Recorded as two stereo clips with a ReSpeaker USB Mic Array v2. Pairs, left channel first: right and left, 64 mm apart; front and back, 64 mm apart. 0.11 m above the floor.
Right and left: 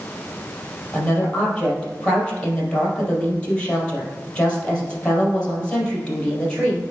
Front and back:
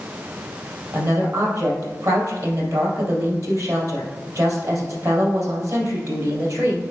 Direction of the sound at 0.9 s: 165° right.